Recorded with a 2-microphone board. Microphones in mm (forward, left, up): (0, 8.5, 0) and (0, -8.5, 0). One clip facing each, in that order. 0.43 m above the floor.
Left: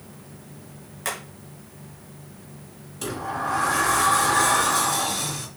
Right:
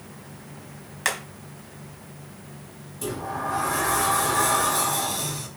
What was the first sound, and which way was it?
Hammering, 25° right (ahead or behind).